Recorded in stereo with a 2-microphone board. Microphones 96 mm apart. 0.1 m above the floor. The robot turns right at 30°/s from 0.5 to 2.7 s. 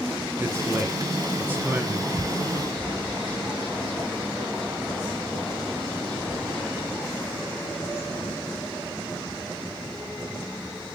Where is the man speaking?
25° right (ahead or behind), 1.6 m; by 2.1 s 15° right (ahead or behind), 1.6 m.